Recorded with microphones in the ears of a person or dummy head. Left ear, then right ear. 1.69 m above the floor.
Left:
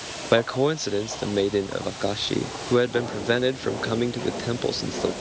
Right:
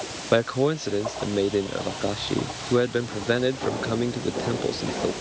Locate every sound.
0.3 s a man speaking: 20° left (ahead or behind)